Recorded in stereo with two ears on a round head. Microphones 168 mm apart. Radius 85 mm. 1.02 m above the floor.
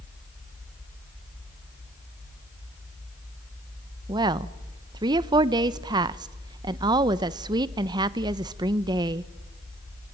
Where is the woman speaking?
25° right (ahead or behind), 0.5 m.